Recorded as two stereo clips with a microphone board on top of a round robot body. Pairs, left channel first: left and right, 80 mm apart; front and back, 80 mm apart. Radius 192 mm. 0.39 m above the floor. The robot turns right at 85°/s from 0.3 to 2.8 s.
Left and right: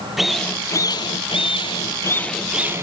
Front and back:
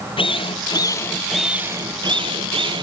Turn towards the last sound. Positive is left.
turn(degrees=-150)